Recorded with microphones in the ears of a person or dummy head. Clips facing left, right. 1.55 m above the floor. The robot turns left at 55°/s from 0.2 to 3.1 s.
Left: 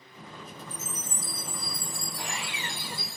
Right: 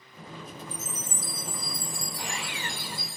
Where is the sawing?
165° right, 1.8 m; by 3.2 s 140° left, 1.8 m.